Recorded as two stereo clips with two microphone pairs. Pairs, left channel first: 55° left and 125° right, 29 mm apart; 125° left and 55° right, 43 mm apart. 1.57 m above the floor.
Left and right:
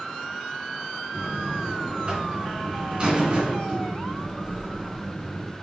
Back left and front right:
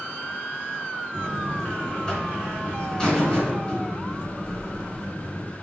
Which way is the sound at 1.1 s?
170° right.